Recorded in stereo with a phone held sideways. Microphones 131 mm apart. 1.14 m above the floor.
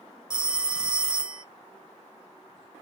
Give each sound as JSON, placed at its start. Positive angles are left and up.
{"t": 0.3, "sound": "a phone ringing", "side_deg": -5, "distance_m": 0.5}